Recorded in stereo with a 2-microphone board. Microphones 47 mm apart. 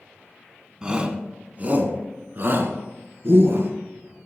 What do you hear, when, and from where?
0.8 s a shout: 20° right (ahead or behind), 1.6 m; by 3.7 s 60° right (ahead or behind), 2.5 m